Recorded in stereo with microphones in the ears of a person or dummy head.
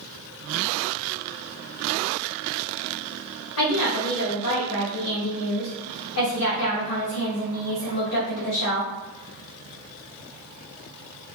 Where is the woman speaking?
80° left, 1.4 m.